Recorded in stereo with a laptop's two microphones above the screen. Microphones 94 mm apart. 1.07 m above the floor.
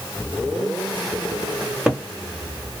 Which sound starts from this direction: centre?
A cupboard door, at 1.6 s.